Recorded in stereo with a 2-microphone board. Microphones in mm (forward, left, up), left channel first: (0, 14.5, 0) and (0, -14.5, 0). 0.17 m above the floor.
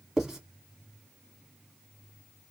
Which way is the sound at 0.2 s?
15° right (ahead or behind).